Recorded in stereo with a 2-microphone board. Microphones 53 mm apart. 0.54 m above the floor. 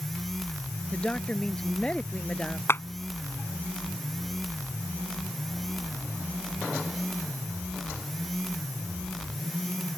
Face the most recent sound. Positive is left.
turn(degrees=50)  # may be behind; listen again after turning